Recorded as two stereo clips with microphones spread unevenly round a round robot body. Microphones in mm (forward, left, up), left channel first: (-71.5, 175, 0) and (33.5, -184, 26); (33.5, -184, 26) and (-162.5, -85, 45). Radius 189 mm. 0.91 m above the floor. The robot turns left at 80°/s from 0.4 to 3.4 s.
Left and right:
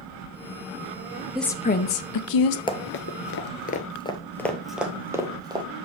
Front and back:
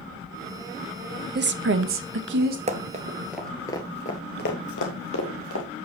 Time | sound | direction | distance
1.4 | a woman speaking | 165° right | 0.9 m
2.7 | running footsteps | straight behind | 1.0 m